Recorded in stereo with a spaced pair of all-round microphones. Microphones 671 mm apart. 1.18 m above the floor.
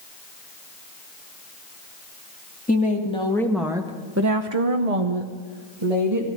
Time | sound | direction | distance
2.7 | a woman speaking | 10° left (ahead or behind) | 2.5 m